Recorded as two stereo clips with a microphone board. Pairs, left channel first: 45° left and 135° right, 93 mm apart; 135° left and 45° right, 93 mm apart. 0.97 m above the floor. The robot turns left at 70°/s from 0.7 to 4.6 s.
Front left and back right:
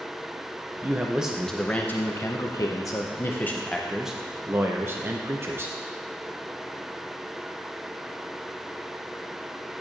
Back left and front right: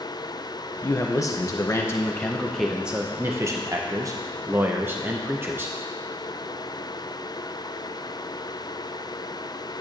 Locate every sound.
0.8 s a man speaking: 175° left, 0.6 m; by 5.8 s 90° right, 0.6 m